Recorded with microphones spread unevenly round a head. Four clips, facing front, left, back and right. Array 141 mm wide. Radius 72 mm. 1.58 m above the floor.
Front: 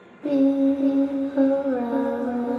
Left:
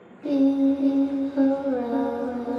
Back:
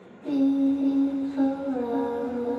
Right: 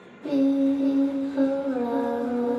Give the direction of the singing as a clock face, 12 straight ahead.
12 o'clock.